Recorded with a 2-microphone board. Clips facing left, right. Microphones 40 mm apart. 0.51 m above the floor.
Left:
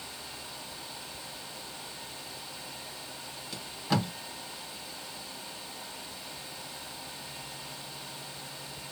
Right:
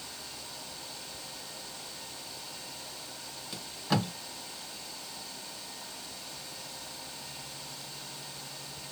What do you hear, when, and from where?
3.5 s tape being pulled: centre (ahead or behind), 1.1 m